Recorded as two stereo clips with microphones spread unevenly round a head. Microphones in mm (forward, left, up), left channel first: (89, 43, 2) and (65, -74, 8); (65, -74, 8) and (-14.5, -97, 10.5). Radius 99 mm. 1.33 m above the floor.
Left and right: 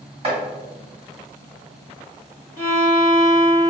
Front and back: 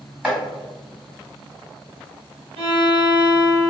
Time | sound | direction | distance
0.2 | chopping | 90° right | 1.7 m
2.6 | a violin | 175° right | 0.9 m